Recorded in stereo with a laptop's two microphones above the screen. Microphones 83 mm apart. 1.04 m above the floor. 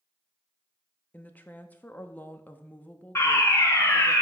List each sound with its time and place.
1.1 s a woman speaking: 20° left (ahead or behind), 0.8 m
3.1 s a fire alarm: 30° left (ahead or behind), 1.4 m